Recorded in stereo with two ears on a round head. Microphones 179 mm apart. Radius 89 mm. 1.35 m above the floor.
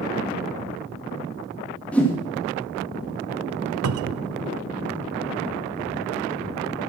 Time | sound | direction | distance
1.9 | a whoosh | 5° left (ahead or behind) | 2.5 m
3.8 | a cupboard door | 80° right | 0.6 m